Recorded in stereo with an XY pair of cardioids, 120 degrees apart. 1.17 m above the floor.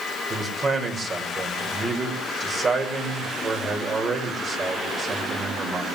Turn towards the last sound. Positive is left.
turn(degrees=-35)